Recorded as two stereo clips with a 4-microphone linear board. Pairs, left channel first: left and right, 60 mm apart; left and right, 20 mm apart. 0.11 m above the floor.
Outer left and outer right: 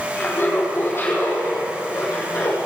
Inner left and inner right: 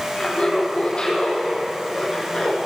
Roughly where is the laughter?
Left.